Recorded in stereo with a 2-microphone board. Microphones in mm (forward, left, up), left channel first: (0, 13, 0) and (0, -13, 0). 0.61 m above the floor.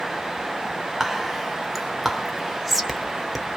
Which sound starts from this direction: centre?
Whispering, at 1.0 s.